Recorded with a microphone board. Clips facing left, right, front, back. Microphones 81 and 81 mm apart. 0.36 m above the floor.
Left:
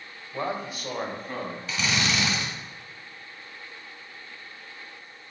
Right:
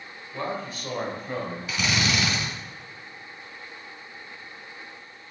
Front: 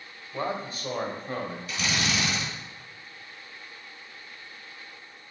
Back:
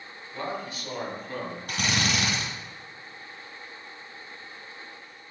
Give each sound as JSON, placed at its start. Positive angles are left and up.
{"t": 0.3, "sound": "a man speaking", "azimuth_deg": 25, "distance_m": 1.6}
{"t": 1.7, "sound": "a drill", "azimuth_deg": -170, "distance_m": 2.0}